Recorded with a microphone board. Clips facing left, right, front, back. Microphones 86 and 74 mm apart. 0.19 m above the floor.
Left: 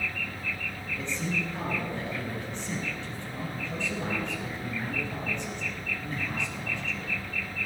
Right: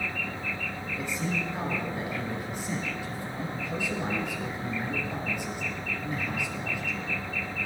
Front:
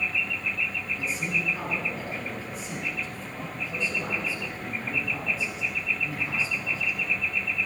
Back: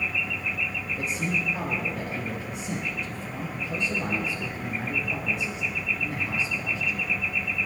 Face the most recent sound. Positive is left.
turn(degrees=-170)